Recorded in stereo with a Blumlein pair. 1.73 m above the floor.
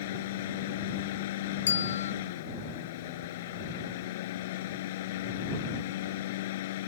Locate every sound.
0.0 s a fan: 55° left
1.7 s a bell: 65° left